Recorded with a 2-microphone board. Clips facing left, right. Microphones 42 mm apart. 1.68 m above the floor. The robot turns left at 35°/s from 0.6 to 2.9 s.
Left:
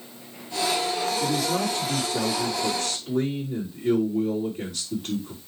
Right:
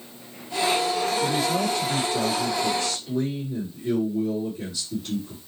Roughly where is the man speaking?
Behind left.